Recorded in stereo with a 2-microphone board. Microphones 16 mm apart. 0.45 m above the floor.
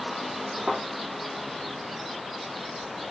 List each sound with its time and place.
0.7 s a thud: 15° right (ahead or behind), 6.5 m